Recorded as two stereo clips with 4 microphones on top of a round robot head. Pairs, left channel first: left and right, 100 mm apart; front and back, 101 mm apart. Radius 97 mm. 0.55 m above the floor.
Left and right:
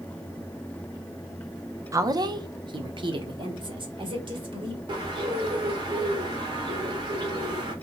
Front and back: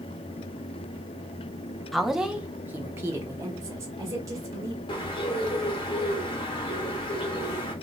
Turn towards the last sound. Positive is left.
turn(degrees=-40)